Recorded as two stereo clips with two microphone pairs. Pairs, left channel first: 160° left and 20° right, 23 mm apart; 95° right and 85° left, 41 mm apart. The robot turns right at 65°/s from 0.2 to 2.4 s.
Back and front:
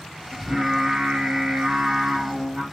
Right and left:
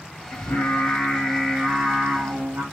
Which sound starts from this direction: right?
Singing, at 0.3 s.